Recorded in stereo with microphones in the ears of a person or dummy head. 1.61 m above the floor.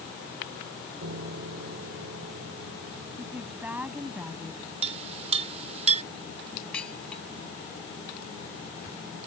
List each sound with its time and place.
1.0 s a piano: 70° right (ahead or behind)
3.2 s a woman speaking: 15° right (ahead or behind)
4.8 s a clink: 30° right (ahead or behind)
6.7 s dishes clattering: 5° left (ahead or behind)